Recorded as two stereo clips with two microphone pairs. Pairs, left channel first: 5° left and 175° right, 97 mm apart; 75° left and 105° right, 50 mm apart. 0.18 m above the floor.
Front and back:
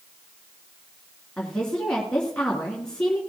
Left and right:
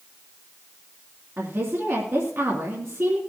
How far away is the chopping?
I don't hear chopping.